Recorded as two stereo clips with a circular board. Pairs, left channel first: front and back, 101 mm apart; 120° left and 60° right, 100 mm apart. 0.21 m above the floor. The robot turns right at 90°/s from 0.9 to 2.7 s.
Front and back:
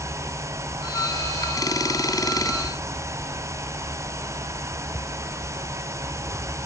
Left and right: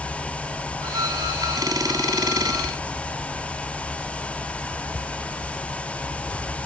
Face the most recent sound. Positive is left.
No sound to turn to.